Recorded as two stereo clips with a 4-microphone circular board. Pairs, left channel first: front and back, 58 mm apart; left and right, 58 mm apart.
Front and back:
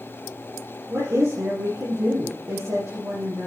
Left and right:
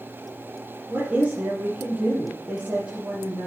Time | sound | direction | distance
0.9 | a woman speaking | 150° right | 4.5 m